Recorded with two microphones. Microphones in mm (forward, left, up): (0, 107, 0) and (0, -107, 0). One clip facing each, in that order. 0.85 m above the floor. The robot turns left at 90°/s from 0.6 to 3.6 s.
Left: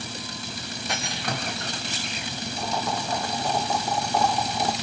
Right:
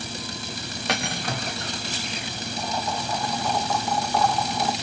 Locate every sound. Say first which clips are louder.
0.9 s cutlery clinking: right 3 dB; 105° right, 0.5 m; by 1.3 s 145° right, 0.5 m
2.6 s boiling: even; 105° left, 1.0 m; by 4.7 s 10° left, 1.0 m